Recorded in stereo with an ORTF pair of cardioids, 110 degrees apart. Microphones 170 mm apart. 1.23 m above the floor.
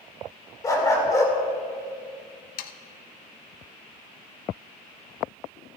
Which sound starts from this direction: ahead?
A dog barking, at 0.6 s.